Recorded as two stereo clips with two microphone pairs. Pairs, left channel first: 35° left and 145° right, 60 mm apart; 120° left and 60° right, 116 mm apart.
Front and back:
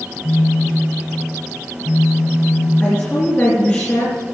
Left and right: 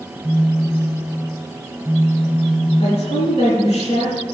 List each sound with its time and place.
0.2 s a phone buzzing: 40° left, 2 m
2.8 s a woman speaking: 95° left, 4 m